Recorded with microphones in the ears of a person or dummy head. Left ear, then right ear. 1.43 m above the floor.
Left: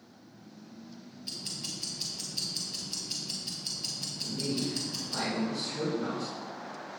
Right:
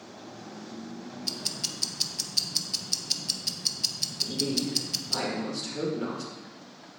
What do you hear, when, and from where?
1.2 s ticking: 30° right (ahead or behind), 0.7 m
4.2 s a man speaking: 25° right (ahead or behind), 2.5 m